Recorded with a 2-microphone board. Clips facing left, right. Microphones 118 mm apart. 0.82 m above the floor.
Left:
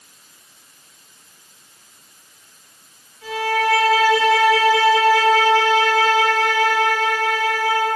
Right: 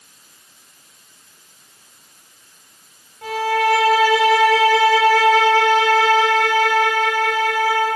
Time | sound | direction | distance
3.2 | a violin | 70° right (ahead or behind) | 3 m